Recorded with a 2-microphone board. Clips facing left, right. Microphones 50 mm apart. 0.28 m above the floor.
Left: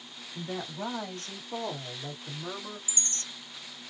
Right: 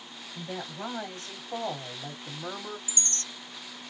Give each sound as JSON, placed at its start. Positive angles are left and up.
{"t": 0.3, "sound": "a woman speaking", "side_deg": 0, "distance_m": 1.6}
{"t": 2.9, "sound": "a chime", "side_deg": -45, "distance_m": 1.2}